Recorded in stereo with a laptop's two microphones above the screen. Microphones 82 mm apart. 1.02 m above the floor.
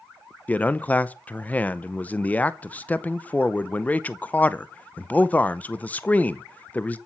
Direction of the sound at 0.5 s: 20° left (ahead or behind).